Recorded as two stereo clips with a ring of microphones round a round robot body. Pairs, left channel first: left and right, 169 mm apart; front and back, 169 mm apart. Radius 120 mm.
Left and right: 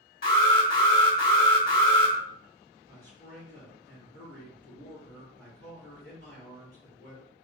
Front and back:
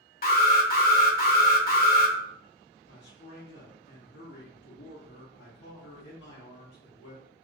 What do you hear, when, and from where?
0.2 s an alarm: 35° left, 1.0 m
2.9 s a man speaking: 15° right, 1.5 m